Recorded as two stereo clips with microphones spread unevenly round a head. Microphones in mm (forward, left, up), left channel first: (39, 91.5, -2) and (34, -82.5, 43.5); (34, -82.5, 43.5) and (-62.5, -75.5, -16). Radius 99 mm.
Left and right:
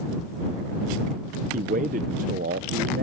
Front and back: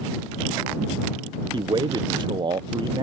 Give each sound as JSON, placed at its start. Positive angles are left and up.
{"t": 1.5, "sound": "a man speaking", "azimuth_deg": -125}